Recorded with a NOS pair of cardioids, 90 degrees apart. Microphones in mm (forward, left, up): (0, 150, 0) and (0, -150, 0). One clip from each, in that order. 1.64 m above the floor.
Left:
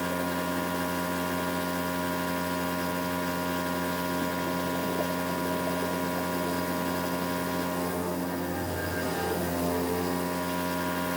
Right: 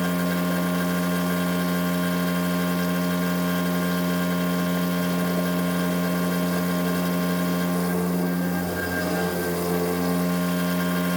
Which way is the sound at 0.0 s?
60° right.